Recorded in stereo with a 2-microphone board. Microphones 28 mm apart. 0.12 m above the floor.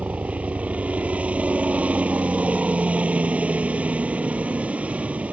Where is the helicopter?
60° right (ahead or behind).